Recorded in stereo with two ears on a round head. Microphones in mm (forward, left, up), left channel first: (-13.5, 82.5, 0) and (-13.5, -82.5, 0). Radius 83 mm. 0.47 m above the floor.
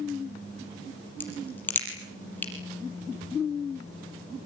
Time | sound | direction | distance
1.2 | a crack | 10° left (ahead or behind) | 6 m